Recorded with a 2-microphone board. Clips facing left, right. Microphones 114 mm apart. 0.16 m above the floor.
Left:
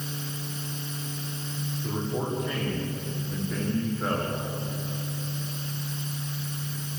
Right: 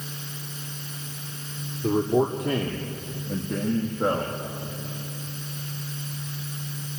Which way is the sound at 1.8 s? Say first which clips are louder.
Right 10 dB; 75° right (ahead or behind).